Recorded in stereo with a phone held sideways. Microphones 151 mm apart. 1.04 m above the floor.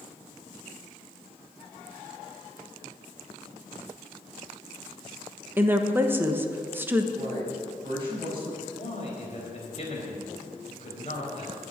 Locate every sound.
5.6 s a woman speaking: 15° right (ahead or behind), 1.1 m
7.2 s a man speaking: 35° right (ahead or behind), 6 m
8.6 s a man speaking: 45° left (ahead or behind), 4 m